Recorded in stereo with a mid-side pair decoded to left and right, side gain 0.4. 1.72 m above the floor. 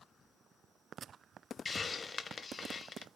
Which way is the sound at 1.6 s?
40° left.